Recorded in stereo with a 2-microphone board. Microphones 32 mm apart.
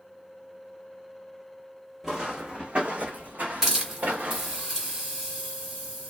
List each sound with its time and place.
2.0 s footsteps: 15° right (ahead or behind), 0.8 m; by 4.6 s 80° right, 1.2 m
3.6 s a hiss: 15° right (ahead or behind), 1.8 m